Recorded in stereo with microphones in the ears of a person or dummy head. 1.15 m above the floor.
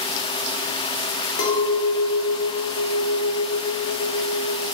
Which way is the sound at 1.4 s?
75° left (ahead or behind).